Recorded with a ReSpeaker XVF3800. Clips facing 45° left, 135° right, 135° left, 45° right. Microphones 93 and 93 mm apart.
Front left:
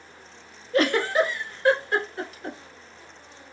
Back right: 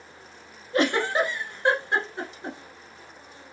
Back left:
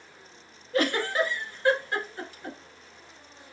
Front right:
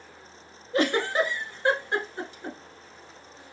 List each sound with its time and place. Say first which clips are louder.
0.7 s a giggle: front left 2 dB, front right 2 dB; 90° right, 1.0 m